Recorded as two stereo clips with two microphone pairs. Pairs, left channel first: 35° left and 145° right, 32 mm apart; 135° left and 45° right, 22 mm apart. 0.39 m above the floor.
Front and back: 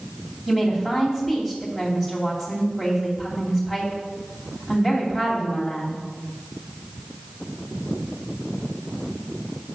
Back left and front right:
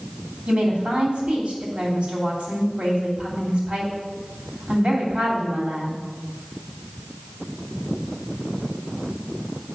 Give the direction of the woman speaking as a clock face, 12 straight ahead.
2 o'clock.